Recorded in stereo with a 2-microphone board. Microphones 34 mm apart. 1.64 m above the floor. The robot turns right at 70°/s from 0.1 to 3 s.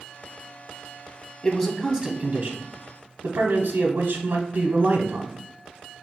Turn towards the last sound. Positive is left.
turn(degrees=-100)